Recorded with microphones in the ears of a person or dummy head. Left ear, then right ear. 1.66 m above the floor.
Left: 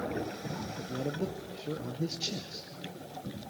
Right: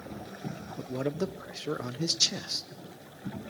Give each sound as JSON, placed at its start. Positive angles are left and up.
{"t": 0.8, "sound": "a man speaking", "side_deg": -60, "distance_m": 0.9}